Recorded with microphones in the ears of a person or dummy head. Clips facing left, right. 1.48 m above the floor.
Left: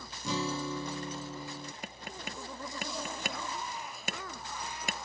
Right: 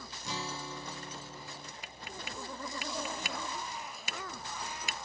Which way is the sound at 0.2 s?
75° left (ahead or behind).